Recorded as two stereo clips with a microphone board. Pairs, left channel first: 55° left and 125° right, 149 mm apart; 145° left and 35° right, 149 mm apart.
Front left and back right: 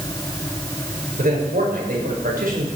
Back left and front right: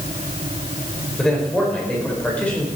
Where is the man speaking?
125° right, 5 m; by 2.7 s 135° right, 4.5 m.